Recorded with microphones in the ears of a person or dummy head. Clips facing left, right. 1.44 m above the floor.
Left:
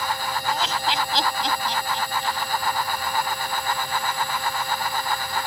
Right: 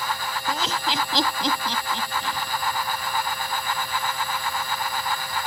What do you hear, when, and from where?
0.5 s laughter: 75° right (ahead or behind); by 2.5 s 65° right (ahead or behind)